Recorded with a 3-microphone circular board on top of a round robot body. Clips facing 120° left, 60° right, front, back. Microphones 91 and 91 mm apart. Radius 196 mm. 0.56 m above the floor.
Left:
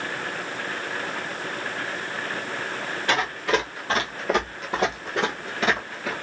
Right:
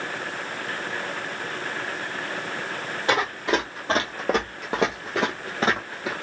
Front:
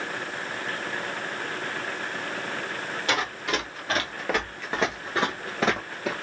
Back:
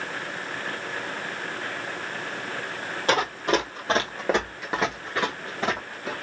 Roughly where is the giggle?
No giggle in this recording.